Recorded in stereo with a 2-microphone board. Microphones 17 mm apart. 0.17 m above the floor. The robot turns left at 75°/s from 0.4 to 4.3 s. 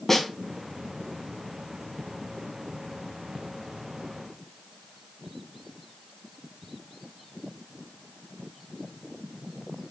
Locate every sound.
0.1 s a snare drum: 20° left (ahead or behind), 1.0 m